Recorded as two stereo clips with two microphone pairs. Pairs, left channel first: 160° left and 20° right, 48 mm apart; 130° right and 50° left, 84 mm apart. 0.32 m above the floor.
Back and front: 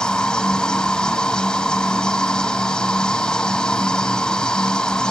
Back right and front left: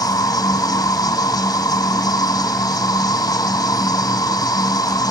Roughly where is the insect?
Behind right.